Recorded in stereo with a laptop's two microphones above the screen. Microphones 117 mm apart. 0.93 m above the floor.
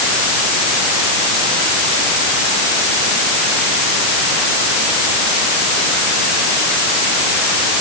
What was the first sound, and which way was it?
Only background noise.